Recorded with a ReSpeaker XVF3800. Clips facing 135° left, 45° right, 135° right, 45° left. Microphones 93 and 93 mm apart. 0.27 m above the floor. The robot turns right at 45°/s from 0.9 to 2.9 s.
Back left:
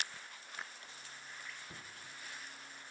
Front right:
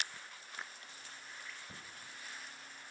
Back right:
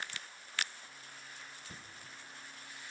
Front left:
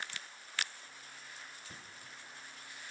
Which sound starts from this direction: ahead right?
Knocking, at 1.7 s.